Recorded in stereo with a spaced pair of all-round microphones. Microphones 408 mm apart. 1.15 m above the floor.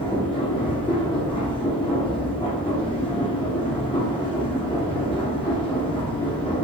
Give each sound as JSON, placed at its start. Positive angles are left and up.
{"t": 0.0, "sound": "a machine running", "side_deg": 10, "distance_m": 0.9}